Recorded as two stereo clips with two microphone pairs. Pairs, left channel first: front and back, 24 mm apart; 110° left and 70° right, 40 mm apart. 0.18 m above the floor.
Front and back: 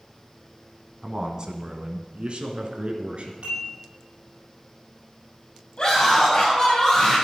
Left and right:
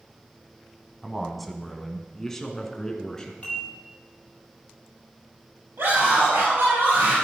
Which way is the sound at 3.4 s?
165° left.